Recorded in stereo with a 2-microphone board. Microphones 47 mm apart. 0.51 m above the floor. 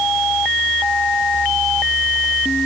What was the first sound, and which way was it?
Only background noise.